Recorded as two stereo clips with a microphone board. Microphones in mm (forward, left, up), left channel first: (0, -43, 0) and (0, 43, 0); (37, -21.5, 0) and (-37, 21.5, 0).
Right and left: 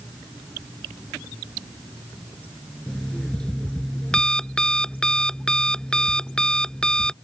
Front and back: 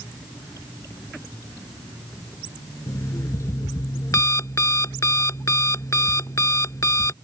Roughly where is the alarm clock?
Ahead.